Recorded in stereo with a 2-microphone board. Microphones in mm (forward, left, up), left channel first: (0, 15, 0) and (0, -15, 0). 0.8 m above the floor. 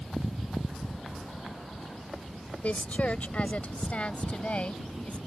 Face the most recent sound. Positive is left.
turn(degrees=45)  # may be behind; listen again after turning